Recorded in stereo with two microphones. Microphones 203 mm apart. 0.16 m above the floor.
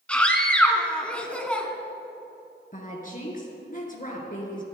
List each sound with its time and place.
0.1 s a scream: 5° left (ahead or behind), 1.8 m
2.7 s a woman speaking: 45° left (ahead or behind), 3 m